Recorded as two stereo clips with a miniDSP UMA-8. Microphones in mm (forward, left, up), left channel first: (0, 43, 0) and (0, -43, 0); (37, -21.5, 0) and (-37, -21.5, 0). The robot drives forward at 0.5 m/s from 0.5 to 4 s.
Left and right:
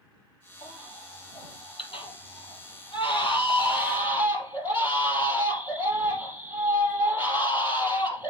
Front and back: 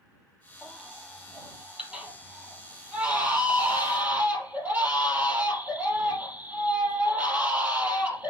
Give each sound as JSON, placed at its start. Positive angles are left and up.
{"t": 0.6, "sound": "a baby crying", "azimuth_deg": 95, "distance_m": 4.0}